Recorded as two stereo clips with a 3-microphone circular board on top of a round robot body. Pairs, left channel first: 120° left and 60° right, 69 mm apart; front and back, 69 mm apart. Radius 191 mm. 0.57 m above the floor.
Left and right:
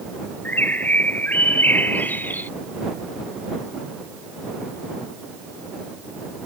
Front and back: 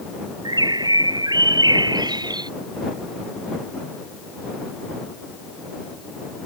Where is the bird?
175° right.